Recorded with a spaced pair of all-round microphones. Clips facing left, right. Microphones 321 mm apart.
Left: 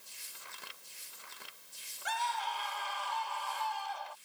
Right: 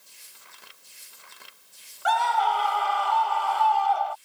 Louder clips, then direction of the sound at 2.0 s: Right 14 dB; 85° right.